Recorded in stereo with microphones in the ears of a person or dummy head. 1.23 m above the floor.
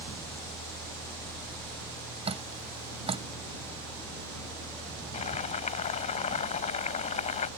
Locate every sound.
2.2 s dripping: 35° right (ahead or behind)
5.1 s boiling: 35° left (ahead or behind)